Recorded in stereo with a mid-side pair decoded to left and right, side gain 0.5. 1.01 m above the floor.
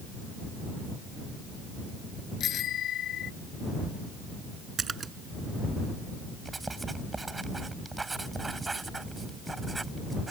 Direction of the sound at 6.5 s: 20° right.